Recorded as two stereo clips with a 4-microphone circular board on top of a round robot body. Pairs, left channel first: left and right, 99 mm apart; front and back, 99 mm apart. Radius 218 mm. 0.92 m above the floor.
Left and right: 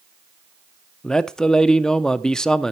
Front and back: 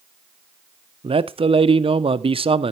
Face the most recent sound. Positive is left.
turn(degrees=175)